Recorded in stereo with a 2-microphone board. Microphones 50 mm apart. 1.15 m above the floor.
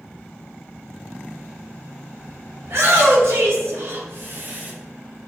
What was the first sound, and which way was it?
A shout, 55° right (ahead or behind).